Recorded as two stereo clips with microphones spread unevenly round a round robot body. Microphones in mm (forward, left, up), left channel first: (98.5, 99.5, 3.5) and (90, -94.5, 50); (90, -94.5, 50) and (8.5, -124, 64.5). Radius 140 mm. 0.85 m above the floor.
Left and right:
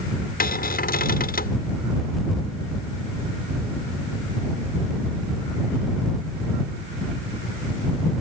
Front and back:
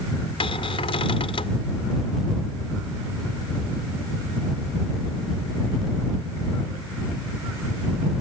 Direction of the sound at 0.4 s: 45° left.